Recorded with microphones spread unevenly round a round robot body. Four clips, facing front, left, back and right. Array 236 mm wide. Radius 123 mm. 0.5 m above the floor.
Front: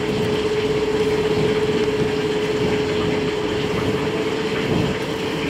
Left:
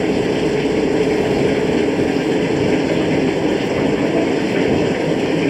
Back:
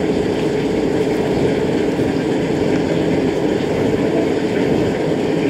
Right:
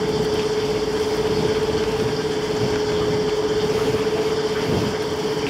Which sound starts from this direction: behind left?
Running water, at 0.0 s.